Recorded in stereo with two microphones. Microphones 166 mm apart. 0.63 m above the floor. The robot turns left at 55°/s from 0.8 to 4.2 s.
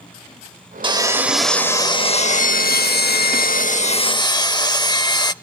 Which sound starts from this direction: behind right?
Sawing, at 0.8 s.